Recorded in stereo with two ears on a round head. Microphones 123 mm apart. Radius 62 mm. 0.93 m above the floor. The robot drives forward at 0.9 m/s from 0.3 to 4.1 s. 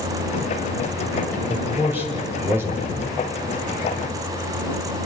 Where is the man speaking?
15° right (ahead or behind), 4.5 m; by 3.2 s 20° right (ahead or behind), 3 m.